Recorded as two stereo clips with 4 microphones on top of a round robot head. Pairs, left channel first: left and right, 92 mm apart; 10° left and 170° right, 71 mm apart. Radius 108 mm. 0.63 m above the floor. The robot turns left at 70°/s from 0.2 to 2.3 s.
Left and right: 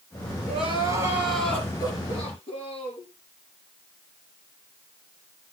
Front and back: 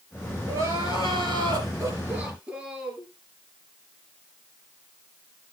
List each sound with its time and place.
0.5 s crying: 115° right, 3.5 m; by 3.1 s 115° left, 3.5 m